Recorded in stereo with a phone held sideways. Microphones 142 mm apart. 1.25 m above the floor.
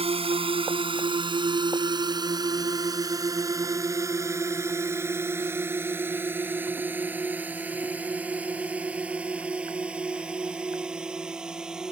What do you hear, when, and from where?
0.0 s a drone: 45° right (ahead or behind); by 11.9 s 5° right (ahead or behind)